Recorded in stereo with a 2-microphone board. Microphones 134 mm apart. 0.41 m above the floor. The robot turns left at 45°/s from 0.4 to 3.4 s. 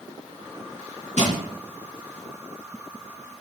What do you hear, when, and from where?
1.2 s crushing: 70° right (ahead or behind), 4 m; by 1.4 s 65° right (ahead or behind), 4 m